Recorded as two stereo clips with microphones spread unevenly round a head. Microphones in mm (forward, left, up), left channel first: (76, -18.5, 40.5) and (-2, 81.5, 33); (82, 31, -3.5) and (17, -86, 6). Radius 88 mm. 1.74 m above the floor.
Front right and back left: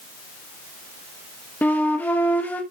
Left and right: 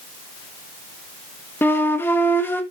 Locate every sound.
1.6 s a flute: straight ahead, 1.1 m